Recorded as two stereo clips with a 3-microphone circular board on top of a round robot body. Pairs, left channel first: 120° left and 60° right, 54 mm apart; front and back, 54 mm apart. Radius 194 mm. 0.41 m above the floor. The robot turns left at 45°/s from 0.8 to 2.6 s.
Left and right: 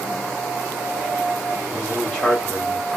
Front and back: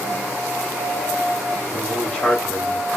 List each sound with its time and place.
1.7 s a man speaking: 70° left, 1.7 m; by 3.0 s 25° left, 1.7 m